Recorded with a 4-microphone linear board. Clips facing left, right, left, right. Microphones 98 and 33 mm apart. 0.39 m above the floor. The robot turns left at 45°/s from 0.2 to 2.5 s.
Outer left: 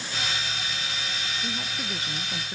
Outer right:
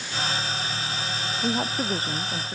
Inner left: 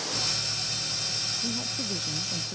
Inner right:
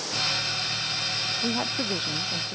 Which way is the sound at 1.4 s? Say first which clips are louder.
Outer right 8 dB, inner right 6 dB; 115° right.